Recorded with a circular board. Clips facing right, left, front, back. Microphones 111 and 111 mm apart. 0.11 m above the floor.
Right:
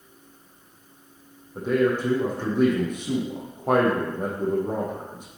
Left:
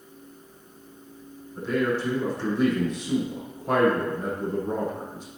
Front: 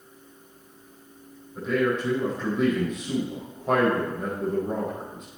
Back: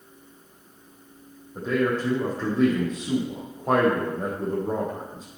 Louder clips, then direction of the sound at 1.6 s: Right 3 dB, even; 125° right.